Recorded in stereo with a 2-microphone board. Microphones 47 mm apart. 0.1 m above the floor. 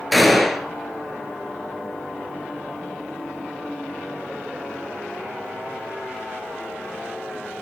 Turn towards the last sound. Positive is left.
turn(degrees=0)  # may be behind; listen again after turning